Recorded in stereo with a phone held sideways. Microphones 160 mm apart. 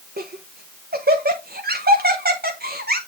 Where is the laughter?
70° right (ahead or behind), 0.8 m.